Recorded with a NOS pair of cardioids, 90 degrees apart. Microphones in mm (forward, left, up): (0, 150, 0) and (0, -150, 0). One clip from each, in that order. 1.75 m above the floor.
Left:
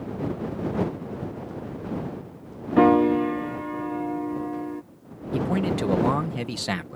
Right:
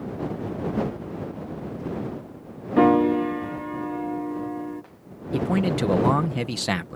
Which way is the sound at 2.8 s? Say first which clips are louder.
Even; 5° left.